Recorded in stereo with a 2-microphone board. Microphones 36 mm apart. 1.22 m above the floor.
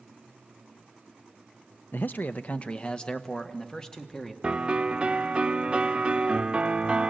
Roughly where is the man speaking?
Left.